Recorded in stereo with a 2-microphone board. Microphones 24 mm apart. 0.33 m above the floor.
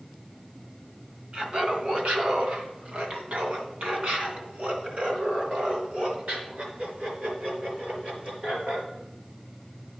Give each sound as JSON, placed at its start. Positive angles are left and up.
{"t": 1.3, "sound": "laughter", "side_deg": -55, "distance_m": 1.6}